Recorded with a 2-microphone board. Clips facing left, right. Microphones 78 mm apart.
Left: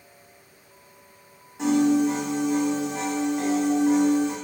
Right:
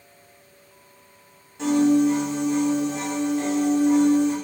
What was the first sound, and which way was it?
A piano, 15° left (ahead or behind).